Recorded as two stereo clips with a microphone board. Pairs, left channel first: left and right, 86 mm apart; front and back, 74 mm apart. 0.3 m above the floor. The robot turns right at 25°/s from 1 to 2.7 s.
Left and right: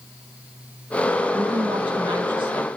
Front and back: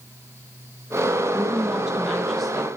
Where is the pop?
No pop in this recording.